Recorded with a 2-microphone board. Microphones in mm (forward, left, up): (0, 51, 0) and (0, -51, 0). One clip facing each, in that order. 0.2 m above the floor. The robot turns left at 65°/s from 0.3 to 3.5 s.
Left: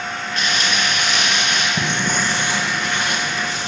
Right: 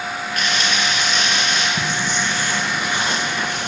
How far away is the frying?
About 3.5 m.